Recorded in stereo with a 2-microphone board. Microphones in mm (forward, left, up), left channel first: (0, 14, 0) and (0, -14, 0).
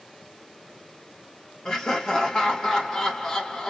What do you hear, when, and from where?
1.6 s laughter: 25° left (ahead or behind), 1.5 m